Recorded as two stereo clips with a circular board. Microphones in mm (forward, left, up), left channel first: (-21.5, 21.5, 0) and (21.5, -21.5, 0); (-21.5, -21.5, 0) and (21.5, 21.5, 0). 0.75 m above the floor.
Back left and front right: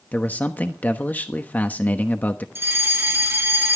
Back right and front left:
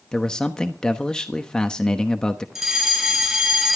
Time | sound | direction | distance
0.1 | a man speaking | 160° left | 1.0 m
2.5 | a fire alarm | 40° right | 1.8 m